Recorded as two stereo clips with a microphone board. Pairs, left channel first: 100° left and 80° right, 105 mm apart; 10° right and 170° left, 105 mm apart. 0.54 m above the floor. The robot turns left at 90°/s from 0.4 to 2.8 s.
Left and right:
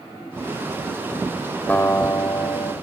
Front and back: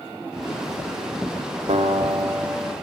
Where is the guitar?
175° left, 0.9 m; by 2.7 s 80° left, 0.9 m.